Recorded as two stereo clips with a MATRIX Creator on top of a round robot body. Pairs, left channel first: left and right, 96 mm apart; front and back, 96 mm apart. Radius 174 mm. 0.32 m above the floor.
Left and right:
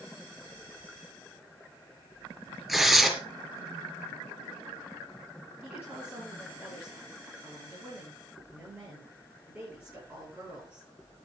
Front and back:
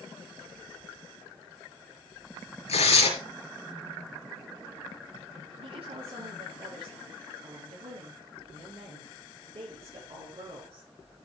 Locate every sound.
2.7 s tearing paper: 5° right, 4.5 m
5.6 s a woman speaking: 160° right, 7.5 m